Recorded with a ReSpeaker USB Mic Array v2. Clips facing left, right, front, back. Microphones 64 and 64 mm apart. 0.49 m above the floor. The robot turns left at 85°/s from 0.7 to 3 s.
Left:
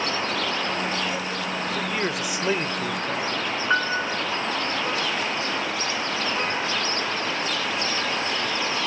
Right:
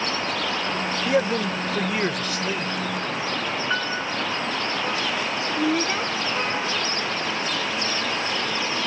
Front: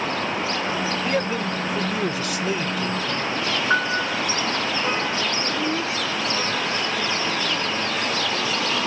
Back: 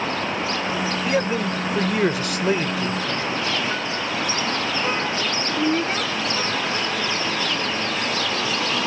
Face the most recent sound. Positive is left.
turn(degrees=-130)